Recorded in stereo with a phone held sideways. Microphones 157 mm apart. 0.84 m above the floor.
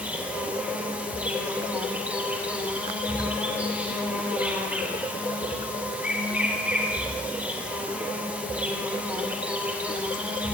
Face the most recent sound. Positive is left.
turn(degrees=-10)  # may be behind; listen again after turning